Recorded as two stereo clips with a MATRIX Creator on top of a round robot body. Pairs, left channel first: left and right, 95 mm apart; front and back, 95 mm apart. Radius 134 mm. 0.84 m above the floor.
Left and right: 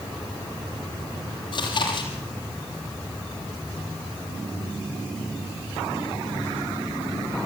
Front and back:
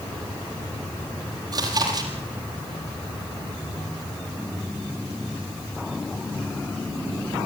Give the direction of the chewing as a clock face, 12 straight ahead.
8 o'clock.